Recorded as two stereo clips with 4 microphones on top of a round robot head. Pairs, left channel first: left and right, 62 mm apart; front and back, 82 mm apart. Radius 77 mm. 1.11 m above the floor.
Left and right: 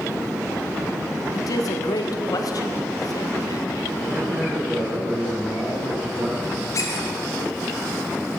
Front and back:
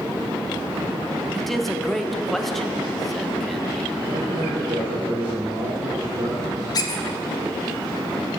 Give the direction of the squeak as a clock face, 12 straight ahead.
11 o'clock.